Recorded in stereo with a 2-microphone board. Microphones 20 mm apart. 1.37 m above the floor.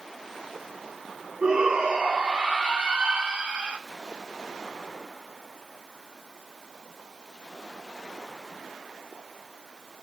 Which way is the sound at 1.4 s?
60° right (ahead or behind).